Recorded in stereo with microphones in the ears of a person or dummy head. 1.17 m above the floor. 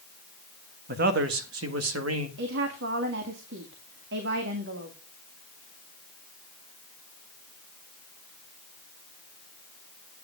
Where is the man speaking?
55° right (ahead or behind), 1.5 m; by 2.3 s 80° right, 1.8 m.